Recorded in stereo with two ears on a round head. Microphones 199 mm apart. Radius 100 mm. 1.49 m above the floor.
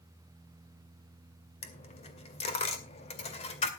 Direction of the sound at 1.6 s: 30° left (ahead or behind).